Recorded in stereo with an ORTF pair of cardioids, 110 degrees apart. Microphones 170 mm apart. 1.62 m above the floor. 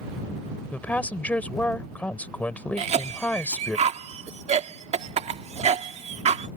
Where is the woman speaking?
10° left.